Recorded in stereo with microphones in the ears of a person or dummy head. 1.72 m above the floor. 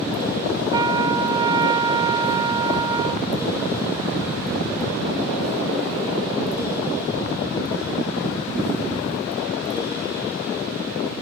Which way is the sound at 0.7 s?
20° right (ahead or behind).